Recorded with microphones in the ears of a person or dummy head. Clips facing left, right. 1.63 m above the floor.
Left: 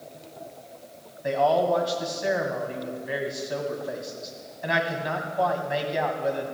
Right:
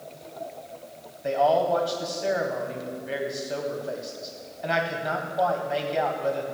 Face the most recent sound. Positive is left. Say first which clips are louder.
# even
turn(degrees=0)  # may be behind; listen again after turning